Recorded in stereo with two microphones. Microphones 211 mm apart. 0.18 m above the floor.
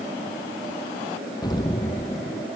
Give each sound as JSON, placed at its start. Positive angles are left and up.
{"t": 1.4, "sound": "an explosion", "side_deg": 20}